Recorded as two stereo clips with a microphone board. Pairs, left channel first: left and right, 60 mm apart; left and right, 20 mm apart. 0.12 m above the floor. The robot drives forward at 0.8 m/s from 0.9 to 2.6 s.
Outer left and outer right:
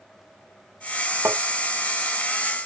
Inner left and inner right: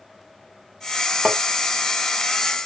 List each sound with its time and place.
1.2 s tapping: 45° right (ahead or behind); by 1.4 s 50° right (ahead or behind)